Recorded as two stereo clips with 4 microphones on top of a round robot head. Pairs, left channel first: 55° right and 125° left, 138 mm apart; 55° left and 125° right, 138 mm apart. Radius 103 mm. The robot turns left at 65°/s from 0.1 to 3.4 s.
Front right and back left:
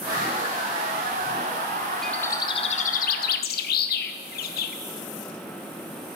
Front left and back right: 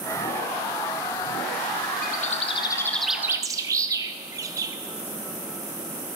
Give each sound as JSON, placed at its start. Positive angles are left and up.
{"t": 2.0, "sound": "a bird", "azimuth_deg": 35, "distance_m": 0.7}